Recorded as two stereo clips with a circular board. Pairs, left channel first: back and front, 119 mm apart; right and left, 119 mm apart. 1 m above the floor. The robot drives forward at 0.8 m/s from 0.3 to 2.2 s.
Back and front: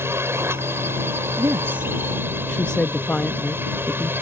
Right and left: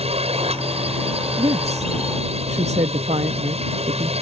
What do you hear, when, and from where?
0.0 s a drone: 70° left
1.4 s a woman speaking: 55° left; by 4.1 s 100° left